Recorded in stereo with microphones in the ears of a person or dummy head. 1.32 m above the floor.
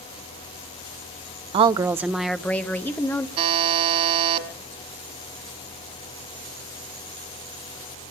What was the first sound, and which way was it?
A woman speaking, 35° right (ahead or behind).